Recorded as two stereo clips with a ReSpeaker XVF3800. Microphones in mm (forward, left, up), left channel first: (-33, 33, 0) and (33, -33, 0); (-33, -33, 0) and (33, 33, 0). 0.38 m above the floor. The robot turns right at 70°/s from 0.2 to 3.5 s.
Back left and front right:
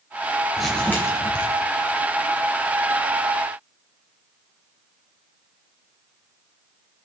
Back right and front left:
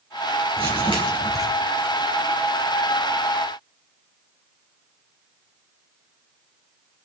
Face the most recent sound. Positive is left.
turn(degrees=-115)